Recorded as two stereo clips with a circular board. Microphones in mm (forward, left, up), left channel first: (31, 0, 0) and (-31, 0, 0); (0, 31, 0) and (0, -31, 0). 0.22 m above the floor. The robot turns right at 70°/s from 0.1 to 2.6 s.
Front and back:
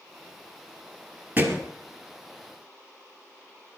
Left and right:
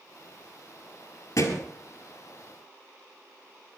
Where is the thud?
115° left, 2.5 m; by 1.7 s 140° left, 2.5 m.